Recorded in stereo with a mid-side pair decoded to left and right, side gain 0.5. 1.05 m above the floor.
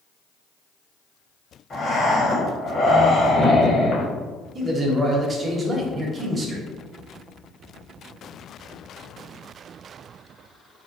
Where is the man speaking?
35° right, 0.9 m.